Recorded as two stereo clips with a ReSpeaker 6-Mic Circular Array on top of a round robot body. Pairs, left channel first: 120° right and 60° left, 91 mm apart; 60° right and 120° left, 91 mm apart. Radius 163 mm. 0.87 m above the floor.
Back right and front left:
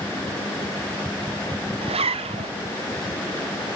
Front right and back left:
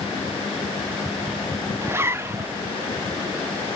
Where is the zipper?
55° left, 0.5 m.